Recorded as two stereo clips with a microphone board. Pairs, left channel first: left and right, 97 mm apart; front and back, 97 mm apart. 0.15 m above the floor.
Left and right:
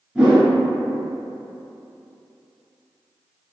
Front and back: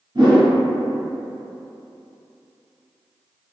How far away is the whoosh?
About 1.1 m.